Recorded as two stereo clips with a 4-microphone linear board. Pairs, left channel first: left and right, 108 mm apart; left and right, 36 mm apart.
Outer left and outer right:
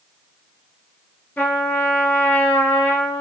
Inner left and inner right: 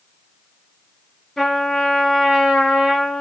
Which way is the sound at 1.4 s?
20° left (ahead or behind).